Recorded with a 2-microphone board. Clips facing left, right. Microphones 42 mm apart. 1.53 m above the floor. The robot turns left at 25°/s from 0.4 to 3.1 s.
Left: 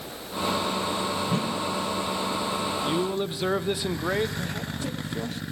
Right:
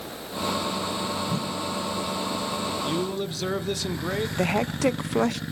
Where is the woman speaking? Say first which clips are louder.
Right 9 dB; 85° right, 0.7 m.